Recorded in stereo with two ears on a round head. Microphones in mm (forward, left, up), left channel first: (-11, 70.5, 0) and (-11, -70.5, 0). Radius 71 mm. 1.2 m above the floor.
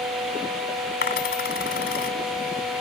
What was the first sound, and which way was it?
A dropped coin, 70° left (ahead or behind).